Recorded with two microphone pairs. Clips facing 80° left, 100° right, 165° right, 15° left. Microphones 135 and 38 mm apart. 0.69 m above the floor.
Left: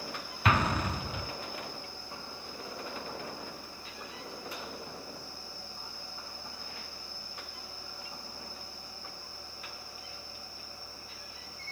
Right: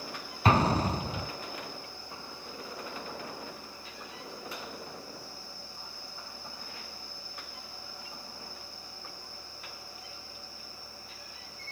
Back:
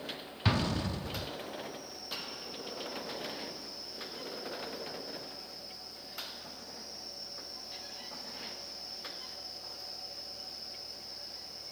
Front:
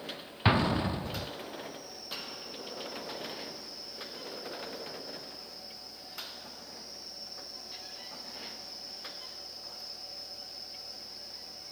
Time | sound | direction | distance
0.5 | an explosion | 50° right | 0.8 m